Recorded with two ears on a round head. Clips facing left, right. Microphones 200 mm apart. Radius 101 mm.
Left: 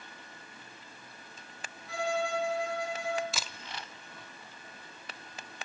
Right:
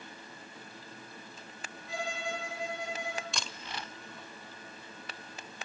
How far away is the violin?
About 6.5 m.